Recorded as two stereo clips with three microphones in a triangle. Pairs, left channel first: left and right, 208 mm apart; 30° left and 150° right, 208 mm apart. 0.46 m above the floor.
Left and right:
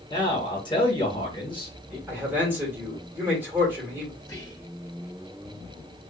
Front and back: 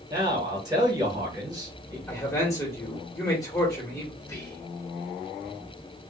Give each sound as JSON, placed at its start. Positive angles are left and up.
{"t": 0.1, "sound": "a man speaking", "azimuth_deg": 150, "distance_m": 1.4}
{"t": 2.1, "sound": "a man speaking", "azimuth_deg": -20, "distance_m": 1.3}
{"t": 4.2, "sound": "whispering", "azimuth_deg": 60, "distance_m": 0.7}